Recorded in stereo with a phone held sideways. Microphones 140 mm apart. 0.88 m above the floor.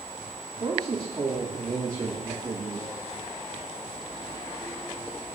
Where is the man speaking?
35° right (ahead or behind), 2.5 m.